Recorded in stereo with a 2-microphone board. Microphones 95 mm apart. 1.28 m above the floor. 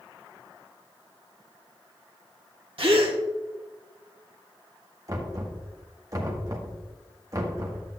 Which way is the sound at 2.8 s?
70° right (ahead or behind).